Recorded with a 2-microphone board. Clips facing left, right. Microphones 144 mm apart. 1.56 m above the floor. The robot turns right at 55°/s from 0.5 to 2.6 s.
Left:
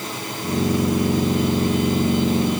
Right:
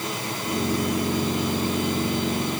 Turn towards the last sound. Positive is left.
No sound to turn to.